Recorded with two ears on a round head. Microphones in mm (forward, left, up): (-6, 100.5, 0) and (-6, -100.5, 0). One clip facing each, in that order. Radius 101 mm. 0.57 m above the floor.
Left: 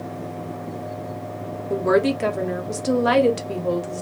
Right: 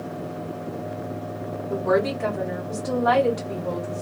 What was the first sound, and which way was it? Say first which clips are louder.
A woman speaking: left 3 dB; 40° left (ahead or behind).